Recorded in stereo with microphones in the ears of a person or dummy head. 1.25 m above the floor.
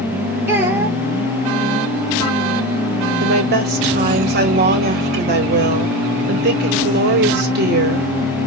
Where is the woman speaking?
50° right (ahead or behind), 2 m.